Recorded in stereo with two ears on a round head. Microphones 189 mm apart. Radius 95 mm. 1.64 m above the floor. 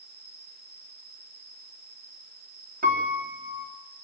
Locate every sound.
0.0 s an insect: 45° right (ahead or behind), 8 m
2.8 s a piano: 40° right (ahead or behind), 3.5 m